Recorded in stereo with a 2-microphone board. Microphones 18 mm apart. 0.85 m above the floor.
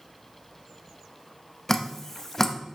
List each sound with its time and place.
1.7 s dripping: 25° left (ahead or behind), 0.7 m